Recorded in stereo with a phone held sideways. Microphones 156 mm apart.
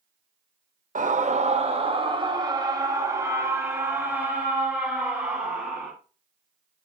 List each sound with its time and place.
0.9 s a scream: 60° right (ahead or behind), 1.1 m; by 5.9 s 5° right (ahead or behind), 3.5 m